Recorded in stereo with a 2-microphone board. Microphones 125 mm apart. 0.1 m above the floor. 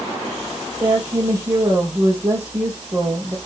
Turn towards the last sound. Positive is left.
turn(degrees=-25)  # may be behind; listen again after turning